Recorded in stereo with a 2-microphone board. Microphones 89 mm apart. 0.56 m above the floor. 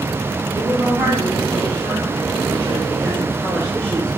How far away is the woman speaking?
About 3.5 m.